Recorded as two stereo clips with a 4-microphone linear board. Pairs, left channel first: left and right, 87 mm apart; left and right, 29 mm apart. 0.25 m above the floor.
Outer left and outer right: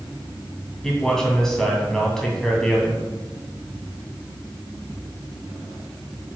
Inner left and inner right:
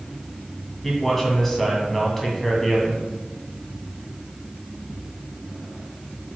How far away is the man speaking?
About 2 m.